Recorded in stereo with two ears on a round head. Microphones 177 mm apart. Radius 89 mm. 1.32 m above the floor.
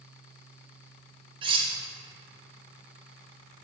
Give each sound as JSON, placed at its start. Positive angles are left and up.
{"t": 1.4, "sound": "cutlery clinking", "side_deg": -25, "distance_m": 0.7}